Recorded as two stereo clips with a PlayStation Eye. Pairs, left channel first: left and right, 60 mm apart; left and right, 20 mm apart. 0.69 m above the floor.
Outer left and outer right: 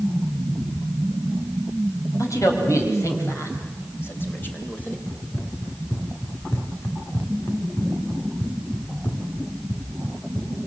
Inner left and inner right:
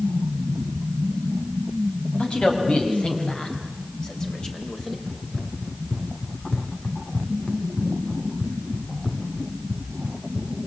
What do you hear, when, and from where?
2.2 s a man speaking: 65° left (ahead or behind), 5 m; by 5.0 s 25° left (ahead or behind), 3.5 m
5.1 s running footsteps: 35° left (ahead or behind), 3.5 m; by 10.5 s 75° left (ahead or behind), 4 m